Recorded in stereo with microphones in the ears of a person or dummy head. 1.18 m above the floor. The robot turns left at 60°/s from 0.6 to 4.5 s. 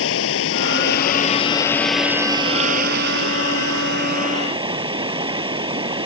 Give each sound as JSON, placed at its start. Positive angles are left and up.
{"t": 0.0, "sound": "running water", "azimuth_deg": 80}